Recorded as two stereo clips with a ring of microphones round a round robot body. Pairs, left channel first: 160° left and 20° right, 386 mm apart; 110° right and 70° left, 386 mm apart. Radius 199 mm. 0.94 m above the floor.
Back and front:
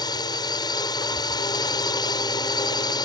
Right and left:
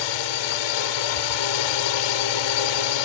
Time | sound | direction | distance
0.0 | a drone | 125° right | ?